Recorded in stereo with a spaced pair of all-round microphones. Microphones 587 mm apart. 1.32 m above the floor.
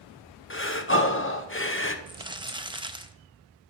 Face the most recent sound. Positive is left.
turn(degrees=-10)  # may be behind; listen again after turning